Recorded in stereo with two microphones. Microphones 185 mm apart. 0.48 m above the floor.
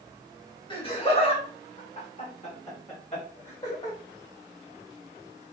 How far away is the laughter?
About 1.6 m.